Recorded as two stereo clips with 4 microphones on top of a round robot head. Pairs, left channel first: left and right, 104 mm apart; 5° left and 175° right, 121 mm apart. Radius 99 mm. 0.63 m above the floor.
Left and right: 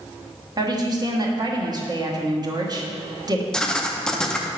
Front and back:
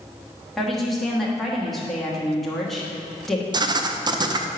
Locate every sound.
0.6 s a woman speaking: 85° right, 1.3 m
3.5 s writing: 165° left, 0.6 m